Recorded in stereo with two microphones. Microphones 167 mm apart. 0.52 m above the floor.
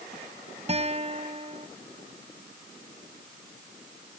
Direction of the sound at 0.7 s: 40° right (ahead or behind).